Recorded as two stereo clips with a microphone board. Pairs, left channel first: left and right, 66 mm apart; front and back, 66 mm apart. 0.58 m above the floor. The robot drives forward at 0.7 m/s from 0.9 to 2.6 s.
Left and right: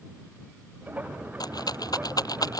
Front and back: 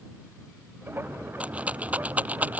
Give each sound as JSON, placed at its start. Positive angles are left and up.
{"t": 1.4, "sound": "a rattle", "azimuth_deg": 110}